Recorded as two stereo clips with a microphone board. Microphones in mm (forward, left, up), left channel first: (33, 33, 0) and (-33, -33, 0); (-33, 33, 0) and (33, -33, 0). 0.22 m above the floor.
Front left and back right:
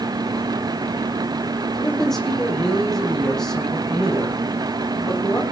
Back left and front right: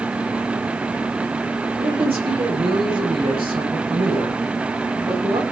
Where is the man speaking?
40° right, 9.5 m; by 5.5 s 35° right, 11.5 m.